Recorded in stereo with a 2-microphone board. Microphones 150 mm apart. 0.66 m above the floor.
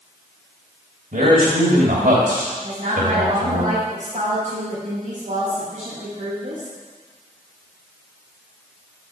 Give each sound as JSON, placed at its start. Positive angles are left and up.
{"t": 1.1, "sound": "a man speaking", "side_deg": -70, "distance_m": 2.5}
{"t": 2.6, "sound": "a woman speaking", "side_deg": -50, "distance_m": 4.0}